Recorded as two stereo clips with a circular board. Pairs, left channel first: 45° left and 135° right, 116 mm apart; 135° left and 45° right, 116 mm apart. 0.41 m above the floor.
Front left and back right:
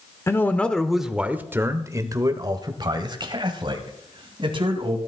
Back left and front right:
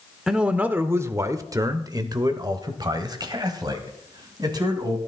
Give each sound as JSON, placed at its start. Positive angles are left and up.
{"t": 0.3, "sound": "a man speaking", "azimuth_deg": 35, "distance_m": 0.9}